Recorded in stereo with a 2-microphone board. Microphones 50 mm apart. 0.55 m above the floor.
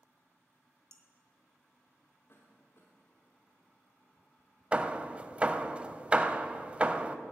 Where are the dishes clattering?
65° right (ahead or behind), 1.3 m.